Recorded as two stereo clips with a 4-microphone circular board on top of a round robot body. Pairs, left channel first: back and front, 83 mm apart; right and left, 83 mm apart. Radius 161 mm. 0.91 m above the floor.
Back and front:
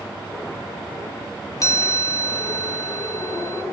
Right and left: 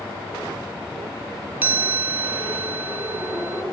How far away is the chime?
About 0.7 m.